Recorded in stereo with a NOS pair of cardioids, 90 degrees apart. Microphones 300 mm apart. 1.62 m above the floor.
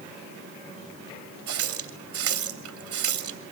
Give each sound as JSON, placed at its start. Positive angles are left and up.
{"t": 1.5, "sound": "a running tap", "azimuth_deg": -50, "distance_m": 3.0}